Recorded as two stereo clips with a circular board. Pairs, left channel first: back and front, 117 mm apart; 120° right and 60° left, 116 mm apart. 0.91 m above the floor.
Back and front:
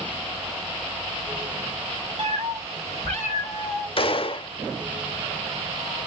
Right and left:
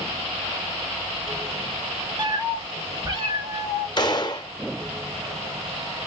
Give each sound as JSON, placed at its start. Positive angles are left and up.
{"t": 2.2, "sound": "a cat meowing", "azimuth_deg": 15, "distance_m": 1.7}
{"t": 4.0, "sound": "a gunshot", "azimuth_deg": -160, "distance_m": 0.7}